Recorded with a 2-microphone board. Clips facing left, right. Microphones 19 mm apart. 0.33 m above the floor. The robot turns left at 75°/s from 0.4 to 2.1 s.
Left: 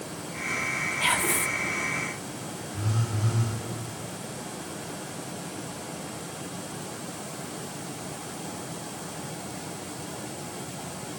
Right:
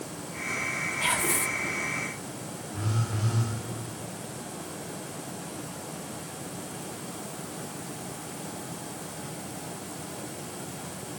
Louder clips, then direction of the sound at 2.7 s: Even; 45° right (ahead or behind).